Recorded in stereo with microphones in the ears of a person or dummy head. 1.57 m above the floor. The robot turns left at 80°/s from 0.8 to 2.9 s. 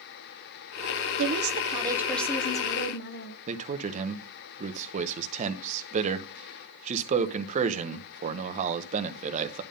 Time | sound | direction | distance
1.2 | a woman speaking | 110° right | 1.1 m
3.5 | a man speaking | 45° right (ahead or behind) | 1.1 m